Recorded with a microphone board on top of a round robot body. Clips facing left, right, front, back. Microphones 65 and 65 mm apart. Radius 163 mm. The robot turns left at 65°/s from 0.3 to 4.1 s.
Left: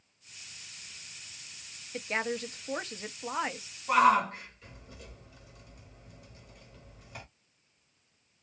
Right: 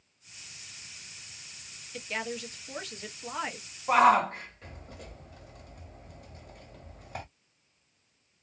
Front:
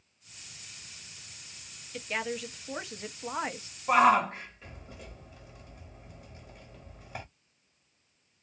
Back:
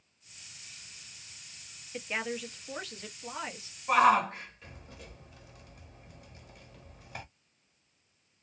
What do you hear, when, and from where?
1.9 s a woman speaking: 120° left, 0.9 m; by 3.8 s straight ahead, 0.9 m
3.9 s a shout: 50° right, 1.5 m; by 7.2 s 65° right, 1.5 m